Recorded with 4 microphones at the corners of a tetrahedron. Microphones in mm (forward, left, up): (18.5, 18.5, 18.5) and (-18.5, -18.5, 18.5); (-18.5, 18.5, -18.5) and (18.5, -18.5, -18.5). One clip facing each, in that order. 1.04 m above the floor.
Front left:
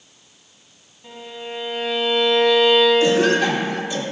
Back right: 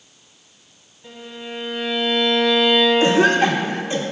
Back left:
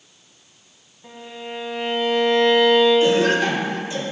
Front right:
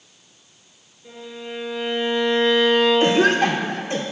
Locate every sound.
1.0 s a violin: 125° left, 1.6 m
3.0 s a cough: 80° right, 0.7 m